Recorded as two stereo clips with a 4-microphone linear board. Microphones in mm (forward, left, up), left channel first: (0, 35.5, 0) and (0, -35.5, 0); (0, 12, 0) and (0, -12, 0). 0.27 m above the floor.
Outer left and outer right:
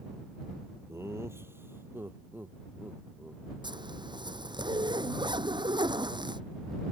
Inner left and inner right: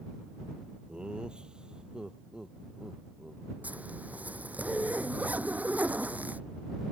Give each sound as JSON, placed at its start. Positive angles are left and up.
{"t": 0.9, "sound": "laughter", "side_deg": -35}
{"t": 3.6, "sound": "a zipper", "side_deg": -80}